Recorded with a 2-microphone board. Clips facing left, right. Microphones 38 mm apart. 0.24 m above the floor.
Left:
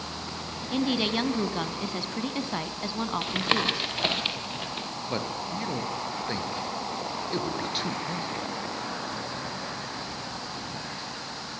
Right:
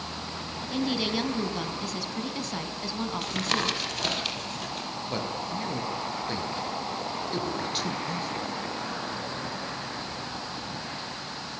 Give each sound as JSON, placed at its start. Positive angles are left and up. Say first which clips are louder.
{"t": 0.7, "sound": "a woman speaking", "louder": "left 2 dB", "side_deg": 20, "distance_m": 1.6}
{"t": 3.2, "sound": "tapping", "louder": "left 2 dB", "side_deg": 25, "distance_m": 3.5}
{"t": 5.1, "sound": "a man speaking", "louder": "left 1 dB", "side_deg": 10, "distance_m": 3.5}